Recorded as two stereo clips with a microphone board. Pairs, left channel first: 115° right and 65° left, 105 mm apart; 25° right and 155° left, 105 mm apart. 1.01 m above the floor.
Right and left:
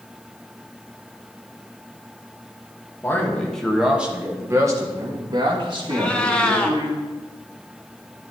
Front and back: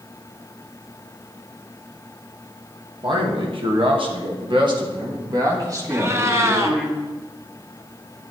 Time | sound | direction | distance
3.0 | a man speaking | 175° right | 1.5 m
5.9 | a cat meowing | 175° left | 1.0 m